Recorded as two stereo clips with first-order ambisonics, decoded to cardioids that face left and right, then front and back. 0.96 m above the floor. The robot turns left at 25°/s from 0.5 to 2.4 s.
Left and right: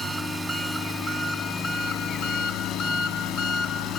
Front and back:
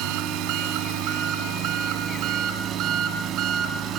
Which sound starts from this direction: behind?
An engine running, at 0.0 s.